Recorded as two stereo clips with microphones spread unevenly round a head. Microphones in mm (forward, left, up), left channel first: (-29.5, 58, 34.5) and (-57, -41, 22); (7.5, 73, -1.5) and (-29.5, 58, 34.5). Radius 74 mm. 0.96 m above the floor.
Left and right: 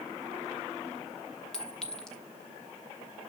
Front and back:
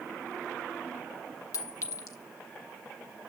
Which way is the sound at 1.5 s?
10° right.